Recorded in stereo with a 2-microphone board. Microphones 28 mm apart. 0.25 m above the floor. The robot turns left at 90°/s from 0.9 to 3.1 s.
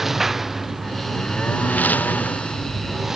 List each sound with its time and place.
0.0 s a lawn mower: 10° right (ahead or behind); by 3.2 s 15° right (ahead or behind)